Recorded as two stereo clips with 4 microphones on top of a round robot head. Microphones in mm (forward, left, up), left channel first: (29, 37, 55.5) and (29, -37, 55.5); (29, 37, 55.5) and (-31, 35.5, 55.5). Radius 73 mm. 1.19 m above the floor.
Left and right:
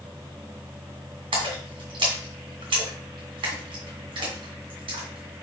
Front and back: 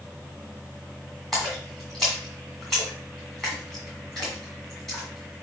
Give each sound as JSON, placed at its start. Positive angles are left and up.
{"t": 1.3, "sound": "a splash", "azimuth_deg": -85, "distance_m": 2.5}